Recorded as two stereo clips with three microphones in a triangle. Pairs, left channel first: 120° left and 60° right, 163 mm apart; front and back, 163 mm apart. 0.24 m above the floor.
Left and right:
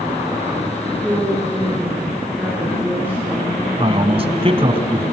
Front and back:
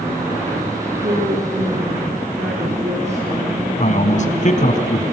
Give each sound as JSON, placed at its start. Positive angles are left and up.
{"t": 1.0, "sound": "a woman speaking", "azimuth_deg": -140, "distance_m": 4.5}
{"t": 3.8, "sound": "a man speaking", "azimuth_deg": -15, "distance_m": 1.9}